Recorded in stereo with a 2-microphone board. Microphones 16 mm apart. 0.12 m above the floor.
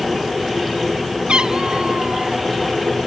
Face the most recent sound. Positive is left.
turn(degrees=-85)